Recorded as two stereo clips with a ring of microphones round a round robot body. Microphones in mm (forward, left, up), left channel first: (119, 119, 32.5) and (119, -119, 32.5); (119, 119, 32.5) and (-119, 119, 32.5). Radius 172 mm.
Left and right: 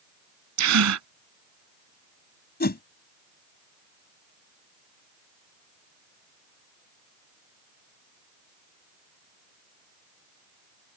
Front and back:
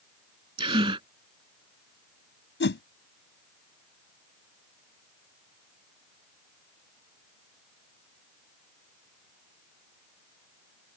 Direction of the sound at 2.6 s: 40° left.